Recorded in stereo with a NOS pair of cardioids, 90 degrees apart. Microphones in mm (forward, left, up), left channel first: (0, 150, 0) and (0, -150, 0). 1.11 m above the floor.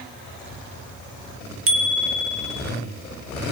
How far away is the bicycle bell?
About 2 m.